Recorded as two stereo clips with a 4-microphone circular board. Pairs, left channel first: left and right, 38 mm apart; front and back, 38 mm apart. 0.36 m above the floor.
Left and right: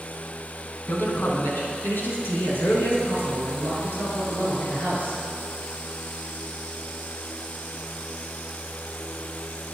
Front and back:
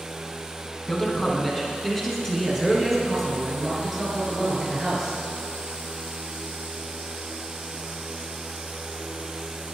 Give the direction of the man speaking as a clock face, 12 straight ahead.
10 o'clock.